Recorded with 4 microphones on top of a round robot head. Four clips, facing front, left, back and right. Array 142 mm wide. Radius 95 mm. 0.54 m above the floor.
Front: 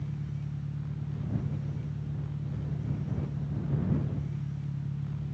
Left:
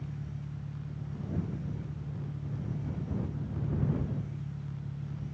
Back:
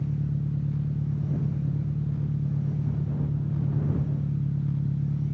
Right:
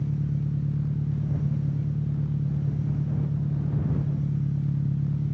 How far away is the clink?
I don't hear a clink.